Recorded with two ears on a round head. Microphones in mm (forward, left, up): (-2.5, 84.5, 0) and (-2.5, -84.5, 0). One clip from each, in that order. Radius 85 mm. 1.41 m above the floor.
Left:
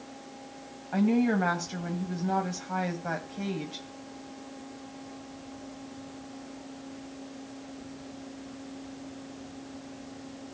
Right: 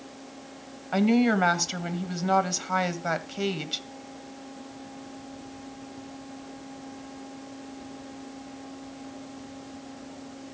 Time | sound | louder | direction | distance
0.9 | a woman speaking | right 4 dB | 85° right | 2 m